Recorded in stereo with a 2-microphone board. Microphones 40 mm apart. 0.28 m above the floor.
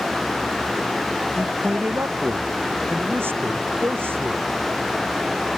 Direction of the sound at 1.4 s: 80° right.